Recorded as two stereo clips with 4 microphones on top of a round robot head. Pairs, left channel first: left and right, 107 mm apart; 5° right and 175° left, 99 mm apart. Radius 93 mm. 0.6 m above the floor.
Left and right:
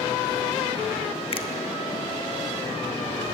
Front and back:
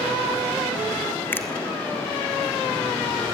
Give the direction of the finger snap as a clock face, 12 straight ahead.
10 o'clock.